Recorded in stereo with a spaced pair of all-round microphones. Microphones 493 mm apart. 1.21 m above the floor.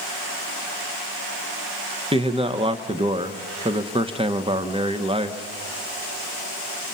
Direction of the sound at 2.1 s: 10° right (ahead or behind).